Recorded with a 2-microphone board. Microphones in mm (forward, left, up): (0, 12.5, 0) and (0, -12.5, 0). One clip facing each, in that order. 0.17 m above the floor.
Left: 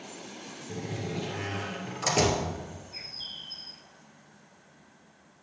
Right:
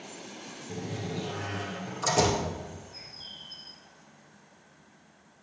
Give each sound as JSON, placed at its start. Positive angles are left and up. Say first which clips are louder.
{"t": 0.7, "sound": "a door slam", "louder": "left 1 dB", "side_deg": 25, "distance_m": 2.0}
{"t": 2.9, "sound": "a bird", "louder": "left 5 dB", "side_deg": 45, "distance_m": 0.6}